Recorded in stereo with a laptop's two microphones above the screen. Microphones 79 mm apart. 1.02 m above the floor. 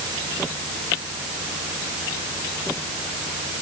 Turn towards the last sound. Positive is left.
No sound to turn to.